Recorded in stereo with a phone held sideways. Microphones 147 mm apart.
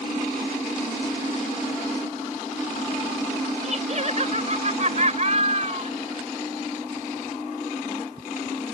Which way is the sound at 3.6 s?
50° right (ahead or behind).